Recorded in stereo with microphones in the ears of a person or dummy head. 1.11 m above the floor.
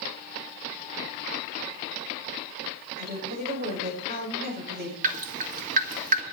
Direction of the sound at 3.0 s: 55° right (ahead or behind).